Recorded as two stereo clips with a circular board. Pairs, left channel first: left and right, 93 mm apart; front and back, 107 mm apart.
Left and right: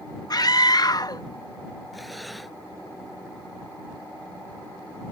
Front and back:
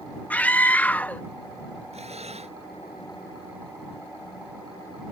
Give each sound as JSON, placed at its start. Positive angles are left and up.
{"t": 0.3, "sound": "a scream", "azimuth_deg": 70}
{"t": 1.9, "sound": "breathing", "azimuth_deg": 180}